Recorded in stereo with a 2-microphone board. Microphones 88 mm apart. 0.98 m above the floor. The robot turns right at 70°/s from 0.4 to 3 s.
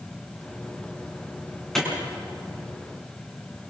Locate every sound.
1.8 s a clap: 5° left (ahead or behind), 7.5 m; by 1.9 s 5° right (ahead or behind), 7.5 m